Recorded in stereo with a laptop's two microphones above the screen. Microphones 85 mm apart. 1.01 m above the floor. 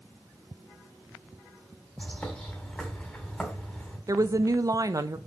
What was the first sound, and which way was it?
A bird, 10° left (ahead or behind).